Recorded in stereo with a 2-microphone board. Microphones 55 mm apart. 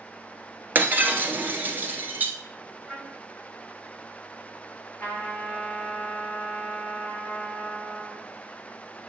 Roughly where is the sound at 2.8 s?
Centre.